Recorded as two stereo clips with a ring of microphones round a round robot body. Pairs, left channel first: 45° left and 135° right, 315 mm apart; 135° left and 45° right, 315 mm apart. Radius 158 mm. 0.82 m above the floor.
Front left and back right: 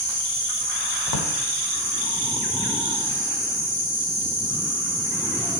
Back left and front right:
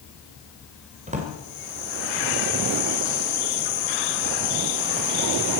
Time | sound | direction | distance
1.1 | a drawer | 25° left | 2 m